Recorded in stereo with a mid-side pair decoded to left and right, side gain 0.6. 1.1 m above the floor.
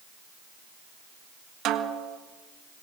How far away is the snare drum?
About 1.5 m.